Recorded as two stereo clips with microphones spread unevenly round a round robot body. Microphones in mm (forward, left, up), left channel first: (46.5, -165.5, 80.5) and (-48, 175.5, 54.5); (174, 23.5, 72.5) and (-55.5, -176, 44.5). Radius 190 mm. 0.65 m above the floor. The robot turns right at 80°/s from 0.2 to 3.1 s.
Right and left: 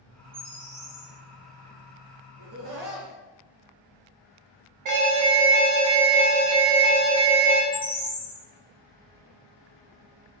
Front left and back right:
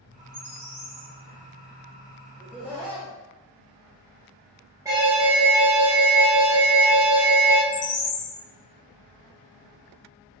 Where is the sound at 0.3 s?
170° left, 1.7 m; by 1.1 s 125° right, 1.7 m.